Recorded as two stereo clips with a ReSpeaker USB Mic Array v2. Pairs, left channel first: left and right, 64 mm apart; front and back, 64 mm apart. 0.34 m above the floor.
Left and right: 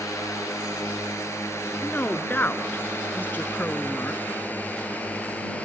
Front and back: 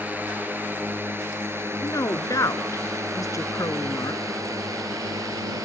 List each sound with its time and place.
0.0 s a drone: 120° left; by 5.7 s 160° left
1.8 s a woman speaking: 30° left